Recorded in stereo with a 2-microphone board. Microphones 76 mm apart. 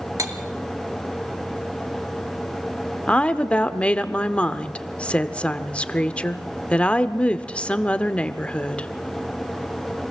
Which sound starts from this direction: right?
Cutlery clinking, at 0.2 s.